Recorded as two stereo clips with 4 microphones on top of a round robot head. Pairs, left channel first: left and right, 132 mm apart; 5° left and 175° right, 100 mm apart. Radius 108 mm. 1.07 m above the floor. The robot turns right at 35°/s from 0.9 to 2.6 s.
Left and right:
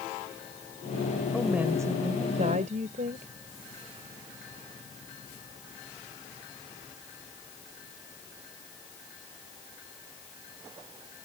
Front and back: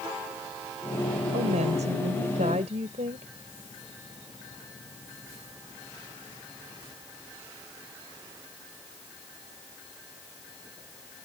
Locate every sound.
1.3 s a woman speaking: straight behind; by 3.3 s 135° right